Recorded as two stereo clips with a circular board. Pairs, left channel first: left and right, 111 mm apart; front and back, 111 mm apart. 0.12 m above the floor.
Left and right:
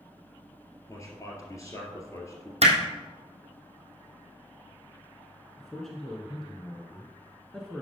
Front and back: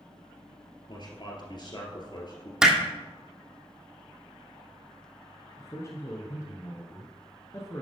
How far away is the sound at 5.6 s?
About 1.1 m.